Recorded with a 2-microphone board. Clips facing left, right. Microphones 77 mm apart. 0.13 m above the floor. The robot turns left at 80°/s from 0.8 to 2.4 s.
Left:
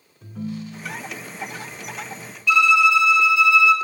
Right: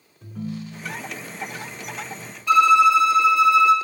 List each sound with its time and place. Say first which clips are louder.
0.2 s a ringtone: left 1 dB; centre (ahead or behind), 0.8 m; by 1.1 s 15° left (ahead or behind), 0.8 m
2.5 s a violin: right 2 dB; 40° right (ahead or behind), 0.7 m